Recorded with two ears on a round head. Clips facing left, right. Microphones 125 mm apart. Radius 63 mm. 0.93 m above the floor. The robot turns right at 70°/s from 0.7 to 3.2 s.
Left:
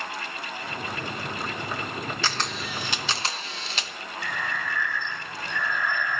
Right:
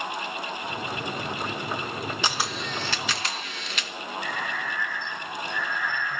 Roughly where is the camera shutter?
Ahead right.